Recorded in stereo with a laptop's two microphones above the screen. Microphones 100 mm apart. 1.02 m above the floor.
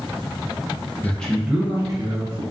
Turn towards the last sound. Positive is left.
turn(degrees=-55)  # may be behind; listen again after turning